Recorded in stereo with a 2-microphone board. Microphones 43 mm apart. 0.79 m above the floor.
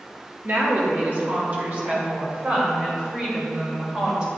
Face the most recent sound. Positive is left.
turn(degrees=-20)  # may be behind; listen again after turning